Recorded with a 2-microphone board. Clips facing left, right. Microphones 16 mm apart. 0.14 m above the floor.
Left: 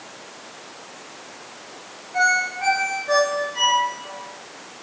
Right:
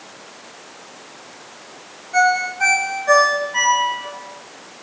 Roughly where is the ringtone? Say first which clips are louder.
Right 3 dB; right.